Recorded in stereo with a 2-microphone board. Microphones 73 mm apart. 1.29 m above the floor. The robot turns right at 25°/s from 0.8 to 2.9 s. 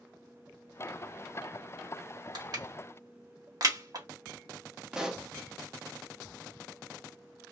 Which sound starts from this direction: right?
Crushing, at 2.4 s.